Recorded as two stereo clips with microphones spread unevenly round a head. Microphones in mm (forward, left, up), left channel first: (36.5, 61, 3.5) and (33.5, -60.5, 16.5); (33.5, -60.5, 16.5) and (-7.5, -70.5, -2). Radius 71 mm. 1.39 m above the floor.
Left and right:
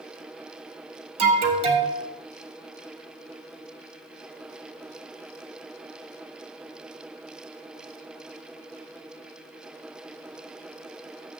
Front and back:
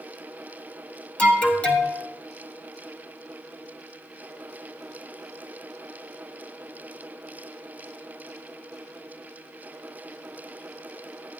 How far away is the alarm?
About 2.5 m.